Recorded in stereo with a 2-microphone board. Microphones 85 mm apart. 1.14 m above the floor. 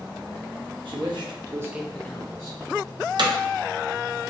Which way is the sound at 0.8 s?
70° right (ahead or behind).